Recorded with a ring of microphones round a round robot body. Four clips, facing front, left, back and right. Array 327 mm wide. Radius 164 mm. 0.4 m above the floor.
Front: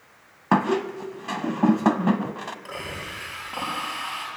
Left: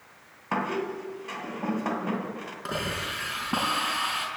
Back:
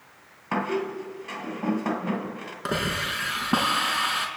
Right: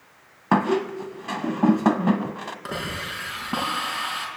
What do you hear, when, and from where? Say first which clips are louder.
0.5 s a squeak: right 8 dB, front 5 dB; 45° right, 1.6 m
2.6 s a hiss: left 1 dB, back 7 dB; straight behind, 5 m